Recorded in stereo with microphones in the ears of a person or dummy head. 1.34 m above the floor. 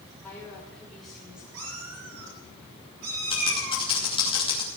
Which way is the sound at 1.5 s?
70° right (ahead or behind).